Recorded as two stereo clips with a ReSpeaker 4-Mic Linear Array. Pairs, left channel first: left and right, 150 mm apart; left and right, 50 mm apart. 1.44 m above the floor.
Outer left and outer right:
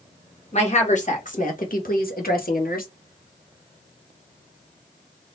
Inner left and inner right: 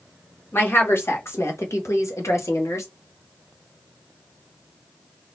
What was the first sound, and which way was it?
A woman speaking, 45° left (ahead or behind).